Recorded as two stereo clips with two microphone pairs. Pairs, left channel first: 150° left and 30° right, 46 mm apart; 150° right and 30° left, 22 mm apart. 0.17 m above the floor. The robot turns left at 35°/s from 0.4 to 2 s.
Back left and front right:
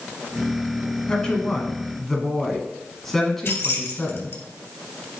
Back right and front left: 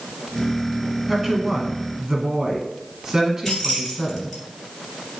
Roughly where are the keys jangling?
Behind left.